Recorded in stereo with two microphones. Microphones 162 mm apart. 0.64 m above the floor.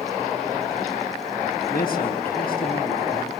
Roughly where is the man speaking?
Left.